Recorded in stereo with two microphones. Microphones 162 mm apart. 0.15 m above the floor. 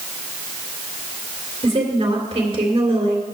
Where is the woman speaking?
35° right (ahead or behind), 2.5 m.